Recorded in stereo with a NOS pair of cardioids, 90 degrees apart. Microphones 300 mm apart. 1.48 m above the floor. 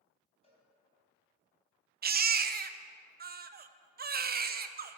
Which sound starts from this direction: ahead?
A cowbell, at 0.4 s.